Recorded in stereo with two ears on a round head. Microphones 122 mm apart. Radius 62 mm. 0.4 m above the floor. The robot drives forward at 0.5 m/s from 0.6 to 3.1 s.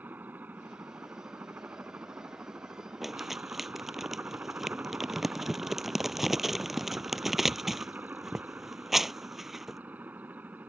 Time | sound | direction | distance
0.0 | a helicopter | 15° right (ahead or behind) | ?
3.0 | crumpling | centre (ahead or behind) | ?